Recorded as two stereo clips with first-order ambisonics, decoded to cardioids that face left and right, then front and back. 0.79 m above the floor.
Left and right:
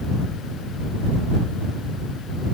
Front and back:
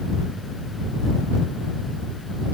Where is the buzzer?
I don't hear a buzzer.